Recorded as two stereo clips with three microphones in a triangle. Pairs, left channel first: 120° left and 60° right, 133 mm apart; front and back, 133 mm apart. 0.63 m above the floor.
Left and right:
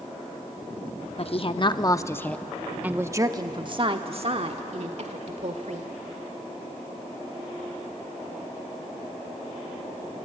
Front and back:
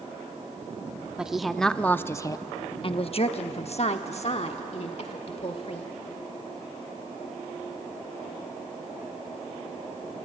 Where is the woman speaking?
95° left, 0.9 m; by 5.9 s 35° right, 1.9 m.